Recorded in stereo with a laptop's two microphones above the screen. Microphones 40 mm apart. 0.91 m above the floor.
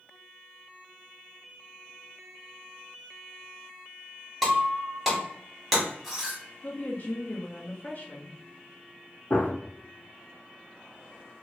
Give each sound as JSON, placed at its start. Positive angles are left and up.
{"t": 4.4, "sound": "breaking glass", "side_deg": 0, "distance_m": 1.5}
{"t": 6.6, "sound": "a woman speaking", "side_deg": 45, "distance_m": 0.8}
{"t": 9.3, "sound": "a gunshot", "side_deg": 40, "distance_m": 1.2}